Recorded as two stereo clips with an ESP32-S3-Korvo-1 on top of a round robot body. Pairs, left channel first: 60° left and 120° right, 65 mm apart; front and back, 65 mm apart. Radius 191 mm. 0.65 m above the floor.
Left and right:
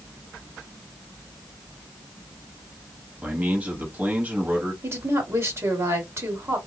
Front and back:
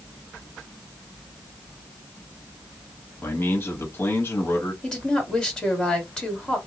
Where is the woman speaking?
75° right, 1.9 m.